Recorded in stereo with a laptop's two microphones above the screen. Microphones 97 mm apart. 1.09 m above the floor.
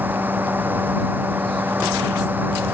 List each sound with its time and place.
0.0 s a fan: 15° right (ahead or behind)